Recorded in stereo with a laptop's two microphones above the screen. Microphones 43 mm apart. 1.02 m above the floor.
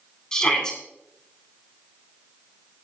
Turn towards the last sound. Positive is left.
turn(degrees=15)  # may be behind; listen again after turning